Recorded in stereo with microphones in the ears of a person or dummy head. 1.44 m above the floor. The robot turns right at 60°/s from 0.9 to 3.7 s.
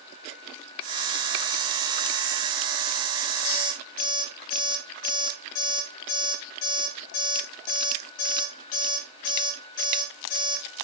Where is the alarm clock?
60° left (ahead or behind), 3 m; by 10.6 s 45° left (ahead or behind), 3 m.